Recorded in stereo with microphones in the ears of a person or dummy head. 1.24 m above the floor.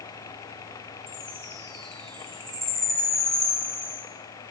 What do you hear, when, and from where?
1.1 s a chime: 25° right (ahead or behind), 2.5 m